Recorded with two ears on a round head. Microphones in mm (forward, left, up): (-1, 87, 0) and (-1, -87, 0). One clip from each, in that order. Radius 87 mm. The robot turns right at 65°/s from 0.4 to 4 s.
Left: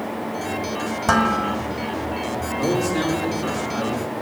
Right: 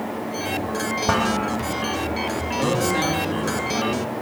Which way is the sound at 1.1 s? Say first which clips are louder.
Left 4 dB; 95° left.